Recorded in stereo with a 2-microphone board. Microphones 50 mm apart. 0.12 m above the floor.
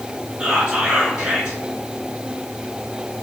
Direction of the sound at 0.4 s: 25° right (ahead or behind).